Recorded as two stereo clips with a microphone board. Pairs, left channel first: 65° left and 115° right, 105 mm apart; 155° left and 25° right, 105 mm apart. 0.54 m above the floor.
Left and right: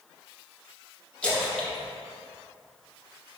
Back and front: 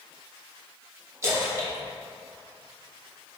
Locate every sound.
1.2 s a splash: straight ahead, 1.0 m